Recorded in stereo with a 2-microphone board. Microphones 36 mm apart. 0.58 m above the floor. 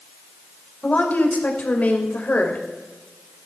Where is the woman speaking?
45° left (ahead or behind), 2.5 m.